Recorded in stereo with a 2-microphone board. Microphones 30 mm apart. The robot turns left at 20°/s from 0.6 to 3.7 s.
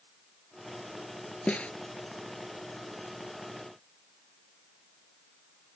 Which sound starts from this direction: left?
A snare drum, at 1.5 s.